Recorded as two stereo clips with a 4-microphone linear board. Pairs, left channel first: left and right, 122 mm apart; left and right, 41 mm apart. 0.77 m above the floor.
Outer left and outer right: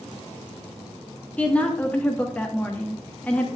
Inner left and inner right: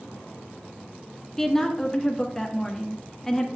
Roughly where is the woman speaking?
Centre.